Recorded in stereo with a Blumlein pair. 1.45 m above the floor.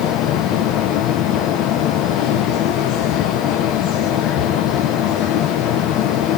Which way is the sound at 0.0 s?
35° left.